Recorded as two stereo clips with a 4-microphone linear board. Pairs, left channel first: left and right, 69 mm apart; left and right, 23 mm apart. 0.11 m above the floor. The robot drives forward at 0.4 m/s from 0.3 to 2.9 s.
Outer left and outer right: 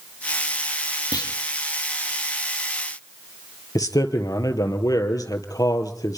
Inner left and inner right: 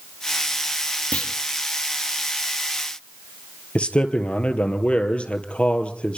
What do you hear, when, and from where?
1.1 s a clunk: 80° left, 3 m
3.8 s a man speaking: 60° left (ahead or behind), 2.5 m